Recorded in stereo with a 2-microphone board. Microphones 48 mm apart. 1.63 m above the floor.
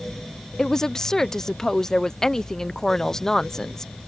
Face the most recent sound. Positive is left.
turn(degrees=10)  # may be behind; listen again after turning